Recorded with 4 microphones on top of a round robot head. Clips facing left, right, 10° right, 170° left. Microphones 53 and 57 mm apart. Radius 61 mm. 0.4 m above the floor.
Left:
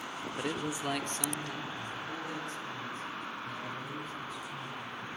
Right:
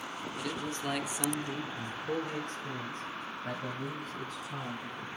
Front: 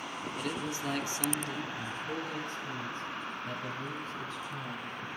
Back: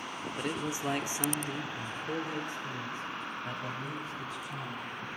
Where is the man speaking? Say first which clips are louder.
Left 2 dB, back 2 dB; 110° left, 1.4 m; by 5.1 s 110° right, 4.5 m.